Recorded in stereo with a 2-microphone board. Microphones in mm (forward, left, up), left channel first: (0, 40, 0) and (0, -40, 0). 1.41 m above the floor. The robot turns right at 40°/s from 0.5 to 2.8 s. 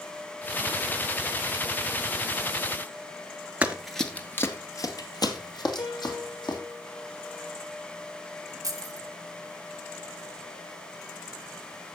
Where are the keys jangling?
45° right (ahead or behind), 1.8 m.